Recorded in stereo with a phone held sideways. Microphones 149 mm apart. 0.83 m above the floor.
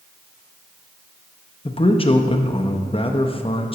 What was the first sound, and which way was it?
A man speaking, 35° left (ahead or behind).